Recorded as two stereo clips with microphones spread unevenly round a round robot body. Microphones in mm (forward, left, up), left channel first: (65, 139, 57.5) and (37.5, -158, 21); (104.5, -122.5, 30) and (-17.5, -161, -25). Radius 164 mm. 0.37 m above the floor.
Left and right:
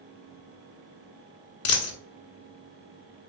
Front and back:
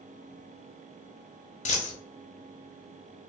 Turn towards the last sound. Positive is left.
turn(degrees=45)